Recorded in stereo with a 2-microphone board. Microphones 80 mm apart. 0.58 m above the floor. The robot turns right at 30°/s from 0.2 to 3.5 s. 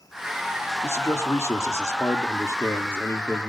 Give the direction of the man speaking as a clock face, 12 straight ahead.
10 o'clock.